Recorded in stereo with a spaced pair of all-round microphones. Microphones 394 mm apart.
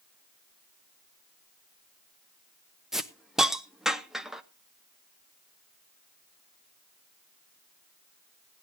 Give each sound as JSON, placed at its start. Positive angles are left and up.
{"t": 2.9, "sound": "a hiss", "side_deg": 0, "distance_m": 0.7}